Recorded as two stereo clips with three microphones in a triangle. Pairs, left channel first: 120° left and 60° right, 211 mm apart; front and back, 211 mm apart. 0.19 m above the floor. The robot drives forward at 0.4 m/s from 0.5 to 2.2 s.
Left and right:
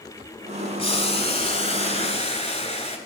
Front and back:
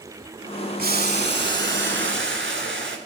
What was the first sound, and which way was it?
Boiling, 165° left.